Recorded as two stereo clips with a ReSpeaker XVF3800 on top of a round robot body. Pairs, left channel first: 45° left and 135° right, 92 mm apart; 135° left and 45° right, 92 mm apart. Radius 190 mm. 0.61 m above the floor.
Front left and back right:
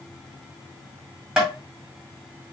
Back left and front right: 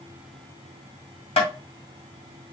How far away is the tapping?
About 1.7 m.